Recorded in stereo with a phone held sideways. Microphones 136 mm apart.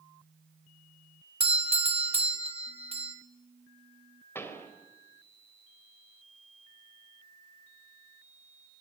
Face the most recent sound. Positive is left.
turn(degrees=15)  # may be behind; listen again after turning